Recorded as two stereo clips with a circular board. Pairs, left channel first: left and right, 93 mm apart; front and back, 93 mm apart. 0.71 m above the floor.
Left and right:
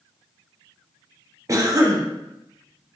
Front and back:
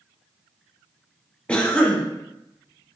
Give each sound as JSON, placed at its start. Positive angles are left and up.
{"t": 1.5, "sound": "a cough", "azimuth_deg": -70, "distance_m": 0.7}